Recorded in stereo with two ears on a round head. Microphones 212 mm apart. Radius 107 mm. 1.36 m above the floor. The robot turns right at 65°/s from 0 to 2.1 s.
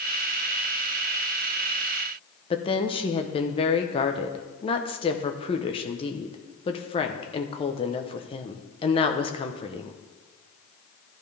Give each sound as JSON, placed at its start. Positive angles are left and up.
{"t": 2.5, "sound": "a woman speaking", "side_deg": 25, "distance_m": 0.9}